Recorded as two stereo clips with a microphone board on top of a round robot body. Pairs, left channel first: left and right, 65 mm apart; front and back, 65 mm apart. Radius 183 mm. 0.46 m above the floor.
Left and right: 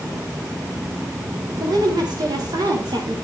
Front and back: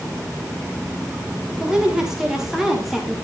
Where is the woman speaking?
100° right, 4.5 m; by 3.1 s 90° right, 3.5 m.